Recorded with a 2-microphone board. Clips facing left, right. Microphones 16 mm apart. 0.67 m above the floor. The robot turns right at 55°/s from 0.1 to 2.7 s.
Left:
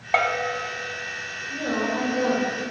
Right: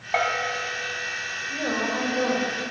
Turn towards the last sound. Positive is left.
turn(degrees=10)